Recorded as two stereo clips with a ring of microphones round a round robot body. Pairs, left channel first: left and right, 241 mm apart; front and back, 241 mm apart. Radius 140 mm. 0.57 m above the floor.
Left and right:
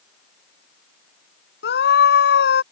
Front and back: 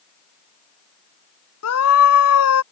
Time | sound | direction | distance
1.6 | a scream | 35° left | ?